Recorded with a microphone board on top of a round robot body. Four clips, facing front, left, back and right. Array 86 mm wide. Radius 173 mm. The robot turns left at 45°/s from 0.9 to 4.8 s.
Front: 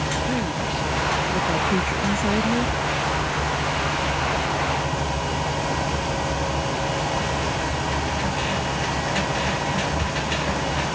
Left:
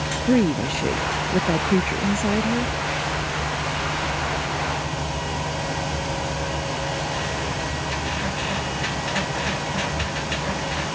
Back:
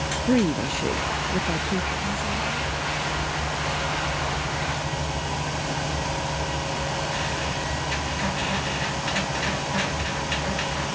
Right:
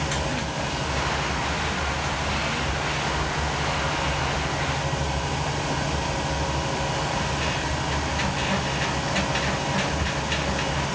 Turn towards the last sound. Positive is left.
turn(degrees=-60)